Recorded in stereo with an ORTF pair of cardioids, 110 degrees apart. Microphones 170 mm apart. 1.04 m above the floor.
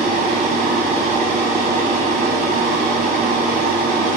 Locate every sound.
0.0 s a machine running: 60° right, 0.9 m